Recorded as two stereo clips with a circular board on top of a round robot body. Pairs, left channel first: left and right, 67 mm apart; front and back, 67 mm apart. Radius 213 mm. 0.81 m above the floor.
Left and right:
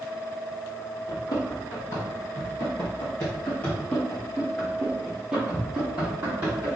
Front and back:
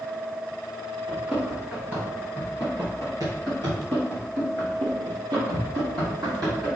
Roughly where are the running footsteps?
Left.